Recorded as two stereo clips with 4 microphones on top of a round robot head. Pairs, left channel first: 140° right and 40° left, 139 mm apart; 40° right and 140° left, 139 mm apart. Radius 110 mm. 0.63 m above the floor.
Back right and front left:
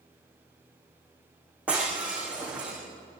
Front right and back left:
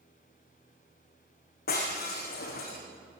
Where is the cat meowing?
No cat meowing in this recording.